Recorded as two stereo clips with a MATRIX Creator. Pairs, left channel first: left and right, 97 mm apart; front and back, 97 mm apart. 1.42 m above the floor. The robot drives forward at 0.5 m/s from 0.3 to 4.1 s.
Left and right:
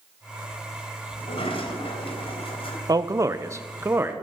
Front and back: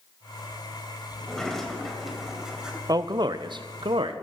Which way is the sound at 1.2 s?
85° left.